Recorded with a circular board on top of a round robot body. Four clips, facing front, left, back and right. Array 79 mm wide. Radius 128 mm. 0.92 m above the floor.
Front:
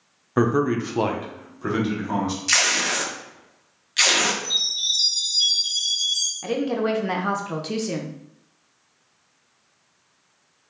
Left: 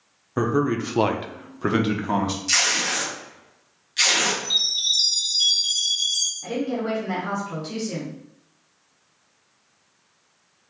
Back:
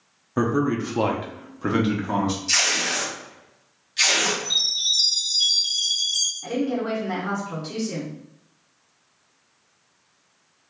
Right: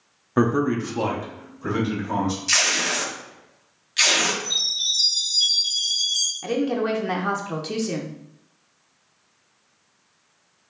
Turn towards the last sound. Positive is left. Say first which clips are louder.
# right 3 dB, front 2 dB
turn(degrees=-35)